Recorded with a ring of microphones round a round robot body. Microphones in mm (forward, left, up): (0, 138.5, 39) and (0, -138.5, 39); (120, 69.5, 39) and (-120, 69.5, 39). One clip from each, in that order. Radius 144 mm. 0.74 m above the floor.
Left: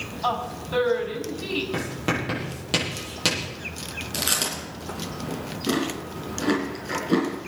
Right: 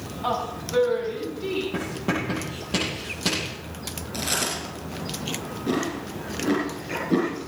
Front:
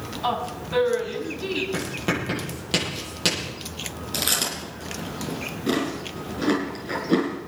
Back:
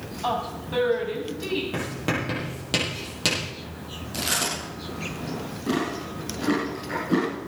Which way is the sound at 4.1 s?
40° left.